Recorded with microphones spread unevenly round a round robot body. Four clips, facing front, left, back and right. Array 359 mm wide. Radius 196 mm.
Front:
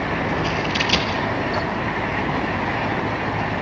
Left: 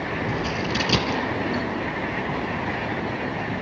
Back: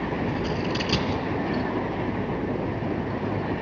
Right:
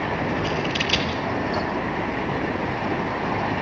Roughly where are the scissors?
Behind left.